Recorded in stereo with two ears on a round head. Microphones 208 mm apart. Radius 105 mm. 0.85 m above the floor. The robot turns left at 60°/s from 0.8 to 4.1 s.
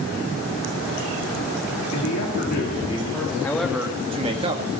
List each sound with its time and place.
1.9 s a man speaking: 85° left, 2 m; by 3.3 s straight ahead, 2 m
3.4 s a man speaking: 15° left, 1.5 m; by 4.6 s 25° right, 1.5 m